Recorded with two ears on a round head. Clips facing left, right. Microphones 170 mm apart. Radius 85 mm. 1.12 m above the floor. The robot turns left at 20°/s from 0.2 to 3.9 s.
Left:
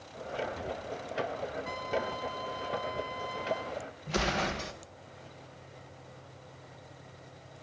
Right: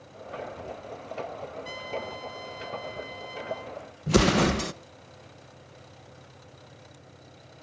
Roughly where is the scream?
I don't hear a scream.